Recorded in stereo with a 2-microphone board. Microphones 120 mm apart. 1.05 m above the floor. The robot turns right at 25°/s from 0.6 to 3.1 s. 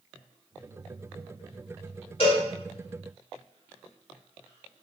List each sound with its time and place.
2.2 s a cowbell: 45° left (ahead or behind), 2 m; by 2.4 s 40° left (ahead or behind), 2 m